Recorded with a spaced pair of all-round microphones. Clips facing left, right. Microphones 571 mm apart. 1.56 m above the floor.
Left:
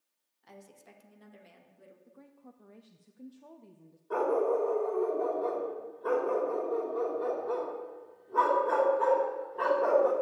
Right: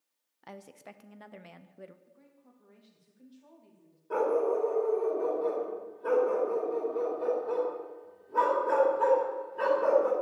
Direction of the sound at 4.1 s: 50° right (ahead or behind).